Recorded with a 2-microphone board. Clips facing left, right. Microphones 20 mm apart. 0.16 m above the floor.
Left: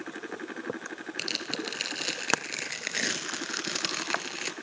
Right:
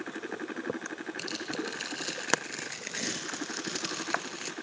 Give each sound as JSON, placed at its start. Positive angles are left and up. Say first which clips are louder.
{"t": 1.2, "sound": "tearing paper", "louder": "left 4 dB", "side_deg": 40, "distance_m": 2.0}